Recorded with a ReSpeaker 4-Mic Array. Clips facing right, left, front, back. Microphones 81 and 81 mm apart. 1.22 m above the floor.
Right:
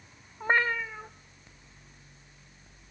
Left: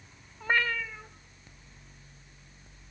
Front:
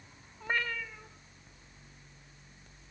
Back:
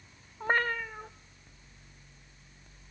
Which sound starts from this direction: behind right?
A cat meowing, at 0.4 s.